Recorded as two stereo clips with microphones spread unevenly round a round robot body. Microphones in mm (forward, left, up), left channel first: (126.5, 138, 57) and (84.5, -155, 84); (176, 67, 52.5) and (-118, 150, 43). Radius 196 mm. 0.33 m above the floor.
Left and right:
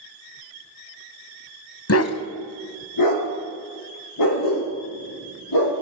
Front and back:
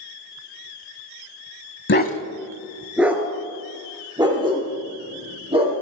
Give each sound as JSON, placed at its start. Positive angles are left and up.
{"t": 1.9, "sound": "a dog barking", "azimuth_deg": 40, "distance_m": 1.1}